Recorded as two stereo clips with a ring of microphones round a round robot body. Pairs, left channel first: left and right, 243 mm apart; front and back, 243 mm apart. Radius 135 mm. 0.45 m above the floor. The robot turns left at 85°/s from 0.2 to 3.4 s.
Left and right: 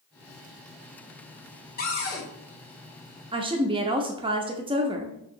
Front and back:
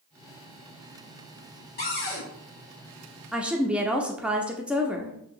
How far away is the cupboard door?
About 2 m.